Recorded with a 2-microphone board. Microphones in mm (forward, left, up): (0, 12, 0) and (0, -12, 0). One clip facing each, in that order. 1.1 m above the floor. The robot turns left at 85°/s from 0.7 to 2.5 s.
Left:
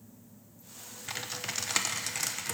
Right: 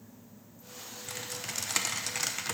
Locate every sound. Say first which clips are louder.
1.1 s typing on a keyboard: left 3 dB; 25° left (ahead or behind), 0.6 m; by 2.5 s 20° right (ahead or behind), 0.6 m